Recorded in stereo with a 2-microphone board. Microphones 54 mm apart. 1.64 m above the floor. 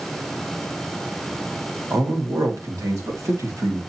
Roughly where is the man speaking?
Right.